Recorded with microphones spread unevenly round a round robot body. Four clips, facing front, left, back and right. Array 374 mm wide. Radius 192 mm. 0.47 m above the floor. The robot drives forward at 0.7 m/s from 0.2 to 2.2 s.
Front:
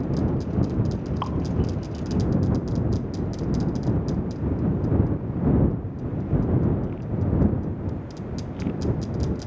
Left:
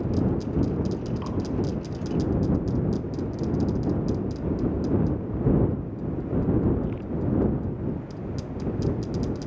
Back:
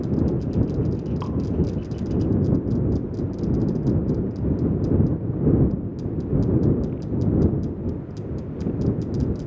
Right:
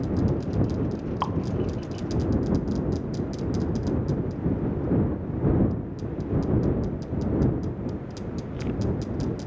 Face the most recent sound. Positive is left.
turn(degrees=-135)